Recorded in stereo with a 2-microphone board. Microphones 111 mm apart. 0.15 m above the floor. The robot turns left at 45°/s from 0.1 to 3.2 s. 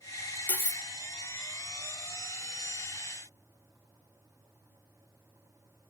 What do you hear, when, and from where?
0.5 s cutlery clinking: 15° left (ahead or behind), 0.6 m; by 0.8 s 10° left (ahead or behind), 0.6 m